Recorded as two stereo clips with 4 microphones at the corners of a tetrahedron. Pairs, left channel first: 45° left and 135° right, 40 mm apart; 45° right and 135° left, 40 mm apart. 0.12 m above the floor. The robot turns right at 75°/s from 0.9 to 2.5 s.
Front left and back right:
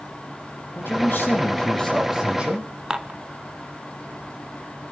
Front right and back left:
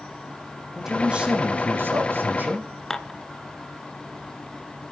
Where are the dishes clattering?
100° right, 0.7 m.